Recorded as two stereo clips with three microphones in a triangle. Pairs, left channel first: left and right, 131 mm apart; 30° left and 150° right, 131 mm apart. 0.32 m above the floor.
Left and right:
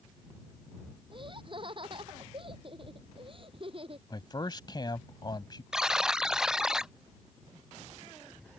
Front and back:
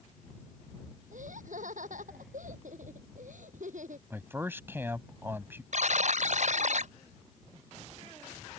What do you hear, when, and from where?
1.1 s laughter: 140° right; by 4.0 s 135° right
4.1 s a man speaking: 140° left
5.7 s a buzzer: 175° right